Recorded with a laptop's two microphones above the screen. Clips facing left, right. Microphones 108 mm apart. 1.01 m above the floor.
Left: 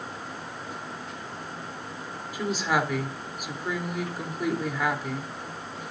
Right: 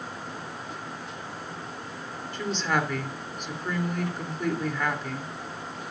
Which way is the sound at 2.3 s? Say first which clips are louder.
Left 1 dB; 10° left (ahead or behind).